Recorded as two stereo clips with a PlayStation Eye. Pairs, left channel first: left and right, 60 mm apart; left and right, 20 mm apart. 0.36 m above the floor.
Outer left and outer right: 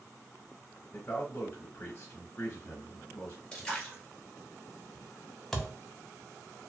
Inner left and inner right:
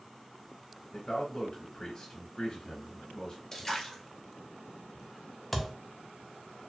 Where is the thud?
5° left (ahead or behind), 0.6 m.